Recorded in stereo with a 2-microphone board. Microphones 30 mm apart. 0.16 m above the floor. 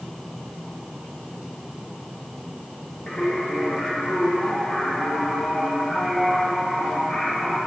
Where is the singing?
45° left (ahead or behind), 6 m.